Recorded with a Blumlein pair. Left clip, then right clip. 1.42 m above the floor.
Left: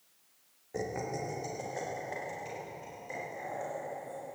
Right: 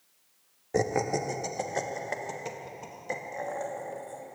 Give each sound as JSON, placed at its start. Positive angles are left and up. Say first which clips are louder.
{"t": 0.7, "sound": "laughter", "louder": "right 9 dB", "azimuth_deg": -30, "distance_m": 0.8}